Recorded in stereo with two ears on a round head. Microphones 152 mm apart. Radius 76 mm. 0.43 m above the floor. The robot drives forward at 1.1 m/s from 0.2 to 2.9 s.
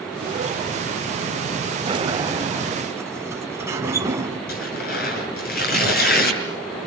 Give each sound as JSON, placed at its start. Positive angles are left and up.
{"t": 1.9, "sound": "a sliding door", "side_deg": -30, "distance_m": 1.4}
{"t": 4.5, "sound": "tearing paper", "side_deg": 60, "distance_m": 7.0}